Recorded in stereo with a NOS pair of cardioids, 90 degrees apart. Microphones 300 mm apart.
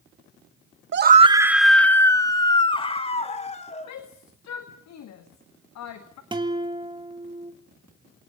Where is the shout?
70° left, 2 m.